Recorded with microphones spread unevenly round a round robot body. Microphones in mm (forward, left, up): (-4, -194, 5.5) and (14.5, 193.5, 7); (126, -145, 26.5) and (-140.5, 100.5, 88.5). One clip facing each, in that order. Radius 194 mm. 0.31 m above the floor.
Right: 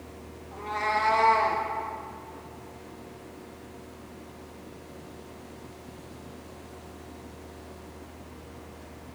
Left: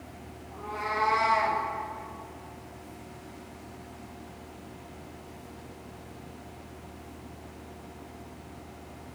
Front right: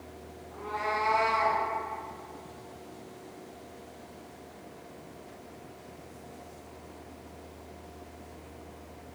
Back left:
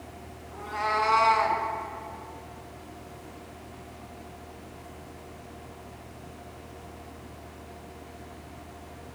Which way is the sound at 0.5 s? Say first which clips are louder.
Right 2 dB, back left 2 dB; 145° right.